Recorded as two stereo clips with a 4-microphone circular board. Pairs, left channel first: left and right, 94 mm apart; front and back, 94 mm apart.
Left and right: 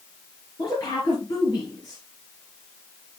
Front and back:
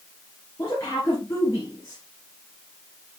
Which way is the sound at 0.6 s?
55° left.